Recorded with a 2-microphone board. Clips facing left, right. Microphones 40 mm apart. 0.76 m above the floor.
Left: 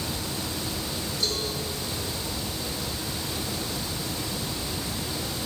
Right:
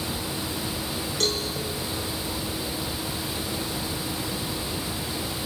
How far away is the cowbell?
About 6.5 m.